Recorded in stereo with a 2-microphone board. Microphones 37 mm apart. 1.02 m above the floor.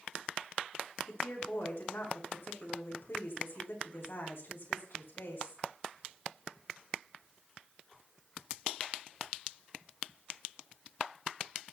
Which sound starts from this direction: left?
A woman speaking, at 1.1 s.